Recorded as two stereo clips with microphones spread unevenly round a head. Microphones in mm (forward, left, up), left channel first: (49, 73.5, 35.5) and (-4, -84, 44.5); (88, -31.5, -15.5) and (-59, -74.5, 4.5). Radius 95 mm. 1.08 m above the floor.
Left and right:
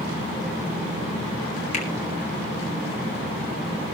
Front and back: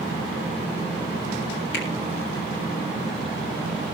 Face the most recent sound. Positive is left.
turn(degrees=25)